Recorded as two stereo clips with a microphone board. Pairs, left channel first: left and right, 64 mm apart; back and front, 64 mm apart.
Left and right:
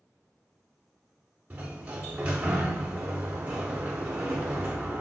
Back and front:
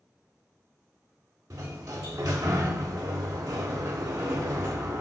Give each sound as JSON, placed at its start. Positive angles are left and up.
{"t": 1.5, "sound": "a sliding door", "azimuth_deg": -25, "distance_m": 0.5}